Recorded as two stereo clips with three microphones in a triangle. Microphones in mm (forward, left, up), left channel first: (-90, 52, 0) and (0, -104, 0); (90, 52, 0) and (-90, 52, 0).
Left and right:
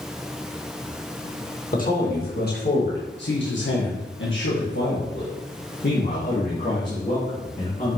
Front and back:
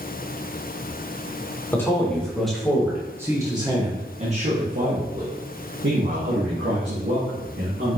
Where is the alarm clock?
I don't hear an alarm clock.